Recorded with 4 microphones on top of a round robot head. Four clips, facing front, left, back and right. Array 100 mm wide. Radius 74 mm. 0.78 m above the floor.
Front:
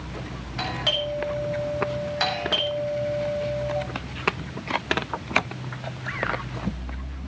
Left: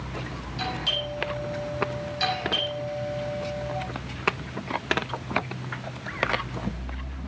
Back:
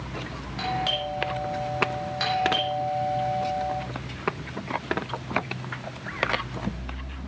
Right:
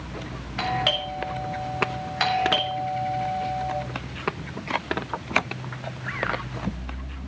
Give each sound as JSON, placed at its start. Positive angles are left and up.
{"t": 0.6, "sound": "a doorbell", "azimuth_deg": -80, "distance_m": 7.0}